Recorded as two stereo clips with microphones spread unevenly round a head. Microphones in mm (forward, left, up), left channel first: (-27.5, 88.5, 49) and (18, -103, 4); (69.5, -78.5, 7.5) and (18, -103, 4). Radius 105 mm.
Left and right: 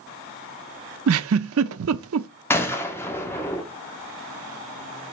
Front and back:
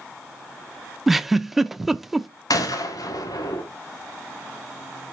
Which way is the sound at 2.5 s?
25° left.